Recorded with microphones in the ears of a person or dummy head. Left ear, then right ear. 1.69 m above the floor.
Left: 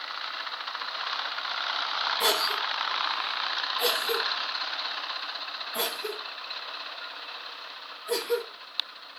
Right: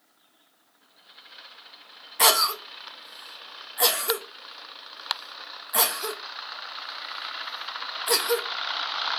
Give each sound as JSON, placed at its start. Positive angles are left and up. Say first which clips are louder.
{"t": 2.2, "sound": "a cough", "louder": "right 7 dB", "side_deg": -65, "distance_m": 0.6}